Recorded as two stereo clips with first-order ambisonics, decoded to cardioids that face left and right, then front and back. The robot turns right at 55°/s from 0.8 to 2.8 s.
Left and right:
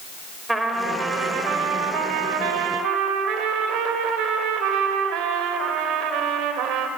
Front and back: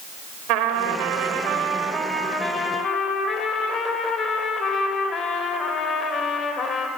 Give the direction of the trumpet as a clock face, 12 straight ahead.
6 o'clock.